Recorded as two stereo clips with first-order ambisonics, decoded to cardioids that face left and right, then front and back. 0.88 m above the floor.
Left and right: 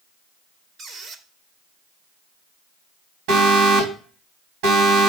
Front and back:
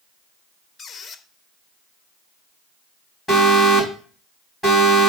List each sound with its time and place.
0.8 s a squeak: 50° right, 0.7 m
3.3 s an alarm: 85° right, 3.5 m